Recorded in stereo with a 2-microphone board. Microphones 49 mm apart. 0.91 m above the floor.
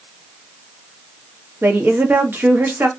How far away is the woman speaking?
About 0.9 m.